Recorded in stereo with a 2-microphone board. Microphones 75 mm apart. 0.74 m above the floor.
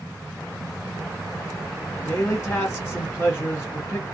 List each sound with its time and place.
2.0 s a man speaking: 20° left (ahead or behind), 1.2 m